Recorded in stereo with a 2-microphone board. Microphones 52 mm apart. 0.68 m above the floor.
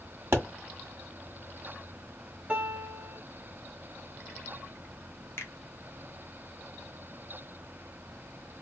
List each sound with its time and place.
0.3 s a pop: 60° right (ahead or behind), 1.6 m
2.5 s a piano: 30° right (ahead or behind), 0.9 m
5.4 s a finger snap: 65° left (ahead or behind), 0.9 m